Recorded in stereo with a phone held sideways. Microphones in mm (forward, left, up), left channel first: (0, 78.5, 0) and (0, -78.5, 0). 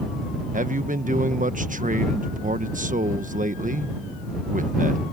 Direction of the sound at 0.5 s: 55° right (ahead or behind).